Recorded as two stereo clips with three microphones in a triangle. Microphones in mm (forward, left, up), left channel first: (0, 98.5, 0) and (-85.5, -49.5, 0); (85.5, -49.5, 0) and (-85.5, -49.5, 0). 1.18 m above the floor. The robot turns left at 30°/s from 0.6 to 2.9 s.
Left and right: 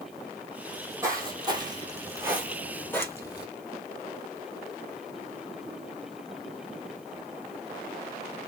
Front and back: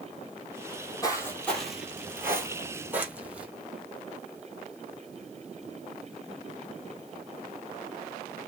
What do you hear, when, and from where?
0.7 s footsteps: 45° right, 1.8 m; by 3.5 s 100° left, 1.4 m